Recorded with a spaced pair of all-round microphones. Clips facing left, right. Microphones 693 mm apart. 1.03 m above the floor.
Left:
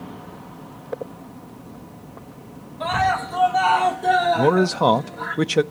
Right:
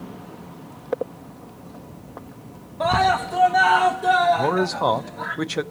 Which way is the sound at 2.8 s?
70° right (ahead or behind).